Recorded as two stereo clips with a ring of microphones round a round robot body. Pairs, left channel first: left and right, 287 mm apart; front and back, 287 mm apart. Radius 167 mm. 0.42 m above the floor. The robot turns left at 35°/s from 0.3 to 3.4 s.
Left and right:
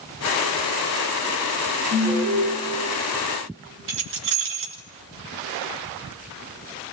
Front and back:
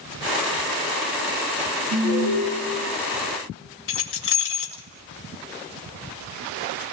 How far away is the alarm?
About 9 m.